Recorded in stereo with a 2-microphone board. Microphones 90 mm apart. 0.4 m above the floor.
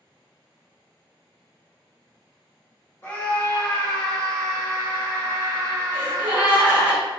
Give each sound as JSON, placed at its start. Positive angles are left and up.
{"t": 3.0, "sound": "a scream", "side_deg": 25, "distance_m": 1.5}
{"t": 5.9, "sound": "a gasp", "side_deg": -20, "distance_m": 1.5}